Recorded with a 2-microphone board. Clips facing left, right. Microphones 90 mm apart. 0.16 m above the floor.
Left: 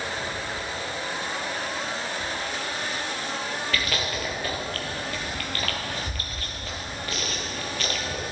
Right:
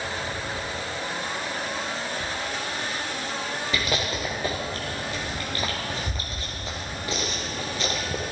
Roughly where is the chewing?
Right.